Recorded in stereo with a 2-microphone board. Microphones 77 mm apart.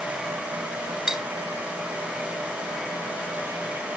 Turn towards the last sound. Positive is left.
turn(degrees=-10)  # may be behind; listen again after turning